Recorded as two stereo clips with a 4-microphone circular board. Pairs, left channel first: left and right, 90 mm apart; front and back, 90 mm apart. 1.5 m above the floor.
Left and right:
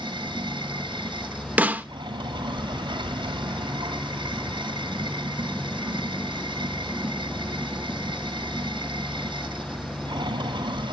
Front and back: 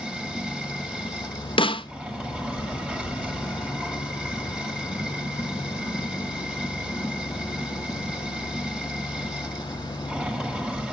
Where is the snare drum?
20° right, 0.6 m.